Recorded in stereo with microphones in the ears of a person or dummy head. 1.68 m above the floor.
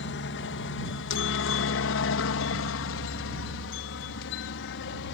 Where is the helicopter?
60° left (ahead or behind).